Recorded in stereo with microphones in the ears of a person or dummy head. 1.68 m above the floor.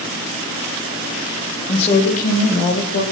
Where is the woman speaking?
30° left (ahead or behind), 1.1 m; by 3.0 s 55° left (ahead or behind), 1.9 m.